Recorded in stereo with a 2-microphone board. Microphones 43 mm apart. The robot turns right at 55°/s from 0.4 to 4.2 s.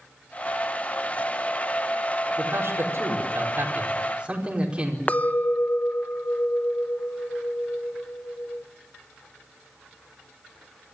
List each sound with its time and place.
2.4 s a man speaking: 125° right, 5 m; by 5.0 s 25° right, 5 m
5.1 s a clink: 35° left (ahead or behind), 0.7 m